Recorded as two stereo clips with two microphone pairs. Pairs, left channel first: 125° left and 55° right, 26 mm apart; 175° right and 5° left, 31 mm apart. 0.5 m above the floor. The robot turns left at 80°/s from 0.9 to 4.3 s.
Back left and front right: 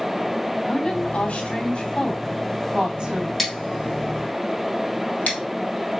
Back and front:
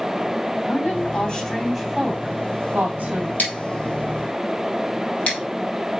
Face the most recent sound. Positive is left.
turn(degrees=140)